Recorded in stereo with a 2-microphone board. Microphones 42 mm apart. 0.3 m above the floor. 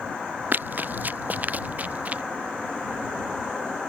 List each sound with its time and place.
0.5 s running footsteps: 50° right (ahead or behind); by 2.2 s 35° right (ahead or behind)